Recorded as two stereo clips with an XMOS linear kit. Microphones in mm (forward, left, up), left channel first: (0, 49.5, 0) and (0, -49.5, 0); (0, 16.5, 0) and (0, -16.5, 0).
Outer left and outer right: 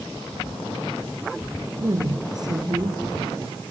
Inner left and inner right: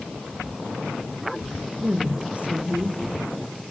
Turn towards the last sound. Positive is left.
turn(degrees=-45)  # may be behind; listen again after turning